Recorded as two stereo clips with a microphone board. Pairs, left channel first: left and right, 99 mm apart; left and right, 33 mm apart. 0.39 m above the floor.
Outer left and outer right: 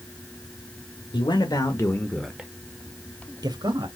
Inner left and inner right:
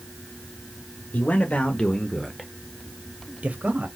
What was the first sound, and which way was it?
A man speaking, 50° left (ahead or behind).